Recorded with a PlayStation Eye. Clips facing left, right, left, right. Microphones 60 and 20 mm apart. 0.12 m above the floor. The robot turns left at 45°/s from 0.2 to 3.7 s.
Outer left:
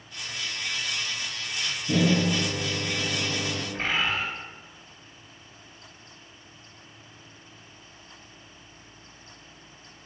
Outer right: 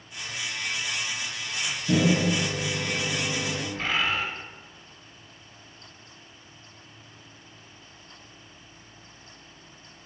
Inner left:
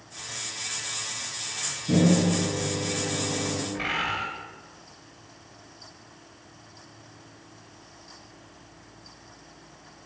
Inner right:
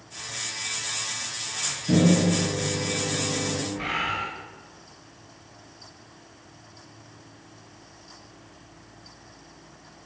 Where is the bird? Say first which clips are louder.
Even, inner left 1 dB; 25° left (ahead or behind), 0.7 m.